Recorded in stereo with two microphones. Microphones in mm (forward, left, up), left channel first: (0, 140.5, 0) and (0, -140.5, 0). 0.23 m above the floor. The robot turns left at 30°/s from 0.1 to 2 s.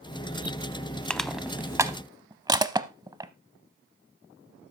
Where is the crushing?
5° left (ahead or behind), 0.7 m; by 3.3 s 15° right (ahead or behind), 0.7 m.